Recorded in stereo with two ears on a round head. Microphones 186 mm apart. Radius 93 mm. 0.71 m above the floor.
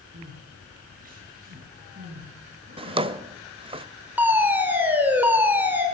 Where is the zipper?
No zipper in this recording.